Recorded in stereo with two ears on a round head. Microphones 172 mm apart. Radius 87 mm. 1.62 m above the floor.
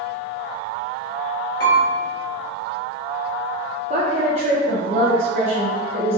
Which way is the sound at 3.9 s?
35° right (ahead or behind).